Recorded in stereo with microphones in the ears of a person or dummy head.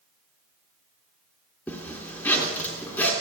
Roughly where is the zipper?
Centre.